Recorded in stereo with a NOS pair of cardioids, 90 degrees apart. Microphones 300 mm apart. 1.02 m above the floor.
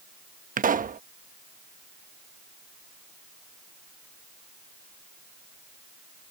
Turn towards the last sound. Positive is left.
turn(degrees=-30)